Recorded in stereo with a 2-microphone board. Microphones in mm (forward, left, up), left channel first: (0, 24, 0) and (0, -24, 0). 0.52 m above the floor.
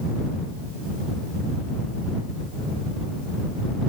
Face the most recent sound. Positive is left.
No sound to turn to.